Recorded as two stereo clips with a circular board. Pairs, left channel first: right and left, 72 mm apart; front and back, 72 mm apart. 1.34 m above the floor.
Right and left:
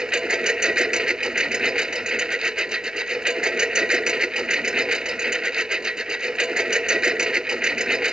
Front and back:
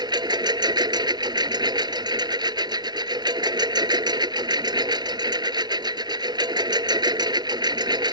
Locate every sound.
0.0 s a lawn mower: 170° left